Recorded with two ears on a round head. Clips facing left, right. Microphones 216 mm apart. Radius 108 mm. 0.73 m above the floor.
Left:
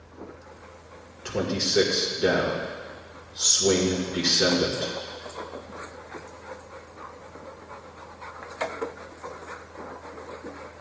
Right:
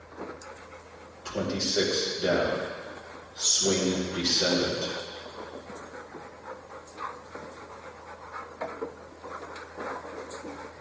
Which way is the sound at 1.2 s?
75° left (ahead or behind).